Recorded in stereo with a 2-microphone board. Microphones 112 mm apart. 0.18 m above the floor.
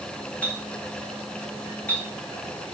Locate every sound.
0.4 s a clink: 10° left (ahead or behind), 8.5 m